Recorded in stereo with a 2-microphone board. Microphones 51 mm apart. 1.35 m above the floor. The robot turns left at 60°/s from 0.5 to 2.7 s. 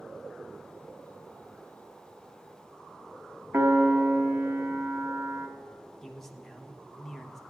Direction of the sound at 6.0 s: 10° left (ahead or behind).